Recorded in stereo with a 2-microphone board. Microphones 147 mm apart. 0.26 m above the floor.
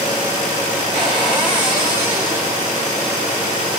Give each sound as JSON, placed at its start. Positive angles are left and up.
{"t": 0.9, "sound": "a cupboard door", "side_deg": -10, "distance_m": 2.0}